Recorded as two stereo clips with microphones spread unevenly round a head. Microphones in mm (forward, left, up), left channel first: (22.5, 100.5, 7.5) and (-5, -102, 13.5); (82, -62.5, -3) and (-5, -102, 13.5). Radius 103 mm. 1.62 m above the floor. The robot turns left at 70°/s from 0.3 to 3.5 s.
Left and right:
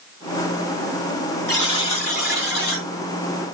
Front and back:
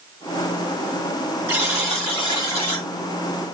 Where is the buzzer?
160° left, 1.9 m; by 2.9 s 60° left, 1.9 m.